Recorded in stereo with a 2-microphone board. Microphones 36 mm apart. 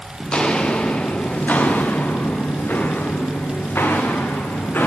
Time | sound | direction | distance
0.2 | footsteps | 20° left (ahead or behind) | 1.8 m